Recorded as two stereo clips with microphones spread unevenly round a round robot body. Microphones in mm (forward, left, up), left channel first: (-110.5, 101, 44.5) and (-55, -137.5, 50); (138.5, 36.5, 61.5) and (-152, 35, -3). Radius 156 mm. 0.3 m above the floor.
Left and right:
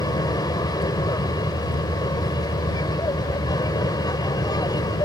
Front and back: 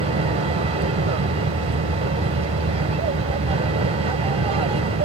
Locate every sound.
0.0 s an aircraft: 165° left